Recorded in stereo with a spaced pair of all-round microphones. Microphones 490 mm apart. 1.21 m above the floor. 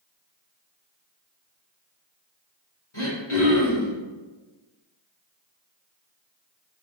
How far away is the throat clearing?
About 2.0 m.